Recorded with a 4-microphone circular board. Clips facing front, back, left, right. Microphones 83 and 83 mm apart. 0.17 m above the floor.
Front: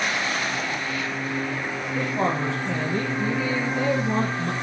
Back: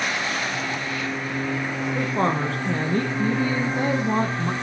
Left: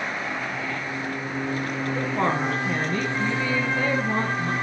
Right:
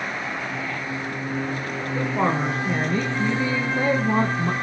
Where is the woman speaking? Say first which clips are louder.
Back 1 dB, right 2 dB; 170° right, 2.5 m; by 4.5 s 125° right, 1.7 m.